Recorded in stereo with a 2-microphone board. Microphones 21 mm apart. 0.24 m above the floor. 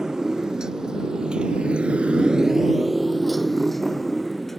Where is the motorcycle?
30° right (ahead or behind); by 4.6 s 10° left (ahead or behind).